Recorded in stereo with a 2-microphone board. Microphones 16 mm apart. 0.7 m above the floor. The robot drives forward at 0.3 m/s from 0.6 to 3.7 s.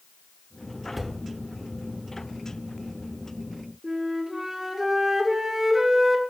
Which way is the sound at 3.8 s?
25° right (ahead or behind).